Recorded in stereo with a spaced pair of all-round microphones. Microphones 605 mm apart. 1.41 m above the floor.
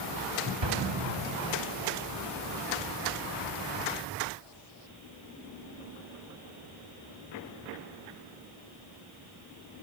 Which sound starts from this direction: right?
An explosion, at 0.6 s.